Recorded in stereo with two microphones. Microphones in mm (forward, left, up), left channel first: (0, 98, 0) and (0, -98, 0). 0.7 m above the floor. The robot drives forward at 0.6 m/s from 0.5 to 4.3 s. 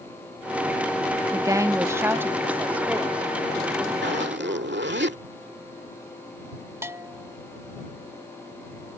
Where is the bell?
15° right (ahead or behind).